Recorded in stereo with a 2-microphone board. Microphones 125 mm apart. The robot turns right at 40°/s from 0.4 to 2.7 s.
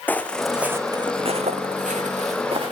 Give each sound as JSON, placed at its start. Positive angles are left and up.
{"t": 0.1, "sound": "footsteps", "side_deg": 15, "distance_m": 2.5}